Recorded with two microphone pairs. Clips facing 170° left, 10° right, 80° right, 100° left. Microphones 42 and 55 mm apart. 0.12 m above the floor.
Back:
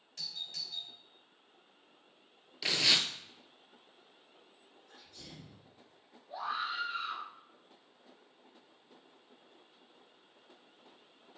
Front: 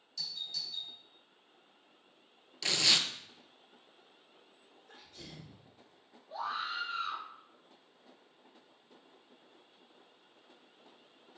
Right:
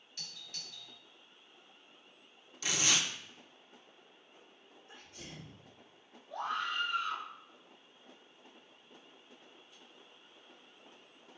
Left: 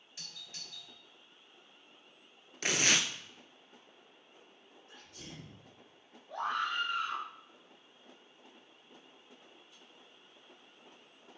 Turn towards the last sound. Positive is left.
turn(degrees=105)